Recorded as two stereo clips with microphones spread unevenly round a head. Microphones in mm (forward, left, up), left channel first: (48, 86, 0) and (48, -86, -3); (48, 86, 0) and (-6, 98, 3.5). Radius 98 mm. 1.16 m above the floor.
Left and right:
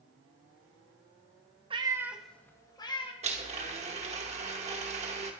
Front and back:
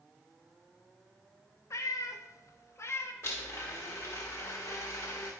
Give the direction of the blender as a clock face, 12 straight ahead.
2 o'clock.